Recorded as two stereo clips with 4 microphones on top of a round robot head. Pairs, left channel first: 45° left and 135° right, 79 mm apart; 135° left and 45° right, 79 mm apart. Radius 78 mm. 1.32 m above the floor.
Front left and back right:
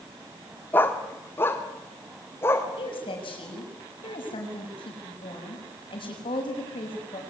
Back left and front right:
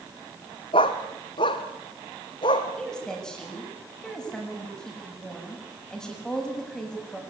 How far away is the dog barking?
About 1.3 m.